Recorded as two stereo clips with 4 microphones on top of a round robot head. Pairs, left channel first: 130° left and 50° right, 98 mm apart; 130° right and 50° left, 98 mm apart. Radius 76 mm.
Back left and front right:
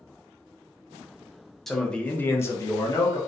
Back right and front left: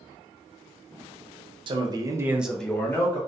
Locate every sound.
1.7 s a man speaking: 45° left, 0.7 m; by 3.2 s straight behind, 0.7 m